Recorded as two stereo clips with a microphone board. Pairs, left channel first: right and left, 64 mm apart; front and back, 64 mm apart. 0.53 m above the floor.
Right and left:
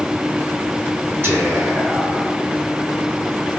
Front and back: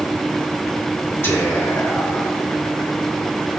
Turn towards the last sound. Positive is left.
turn(degrees=45)